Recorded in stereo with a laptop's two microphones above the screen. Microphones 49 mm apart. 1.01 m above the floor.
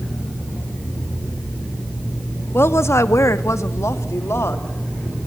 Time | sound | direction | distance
2.5 | a woman speaking | 55° left (ahead or behind) | 1.3 m